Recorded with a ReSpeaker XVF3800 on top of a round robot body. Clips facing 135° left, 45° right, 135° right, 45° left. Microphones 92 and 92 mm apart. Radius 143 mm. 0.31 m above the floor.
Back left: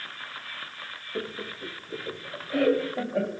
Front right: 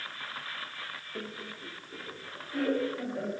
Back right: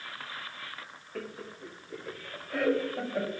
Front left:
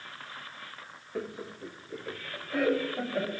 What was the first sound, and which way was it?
Laughter, 100° left.